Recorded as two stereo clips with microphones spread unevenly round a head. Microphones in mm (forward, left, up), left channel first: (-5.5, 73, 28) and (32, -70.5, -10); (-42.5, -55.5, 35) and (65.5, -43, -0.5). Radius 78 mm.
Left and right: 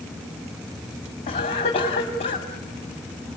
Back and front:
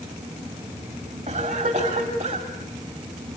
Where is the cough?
50° left, 2.5 m.